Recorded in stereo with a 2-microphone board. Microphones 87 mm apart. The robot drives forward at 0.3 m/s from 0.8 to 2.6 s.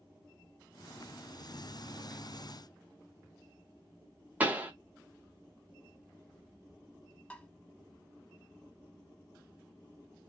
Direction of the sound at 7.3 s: 20° left (ahead or behind).